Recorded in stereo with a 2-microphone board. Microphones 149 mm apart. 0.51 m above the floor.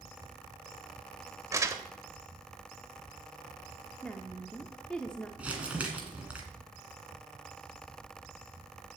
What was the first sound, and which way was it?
Crumpling, 20° right (ahead or behind).